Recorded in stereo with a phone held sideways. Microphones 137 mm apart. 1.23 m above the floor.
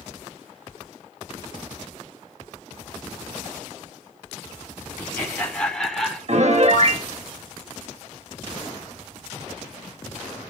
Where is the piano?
55° right (ahead or behind), 1.5 m.